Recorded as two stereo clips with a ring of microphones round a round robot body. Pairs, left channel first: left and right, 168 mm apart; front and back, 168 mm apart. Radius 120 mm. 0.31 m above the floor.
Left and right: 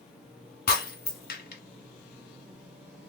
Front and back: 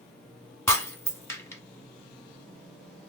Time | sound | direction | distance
0.7 | breaking glass | 75° left | 2 m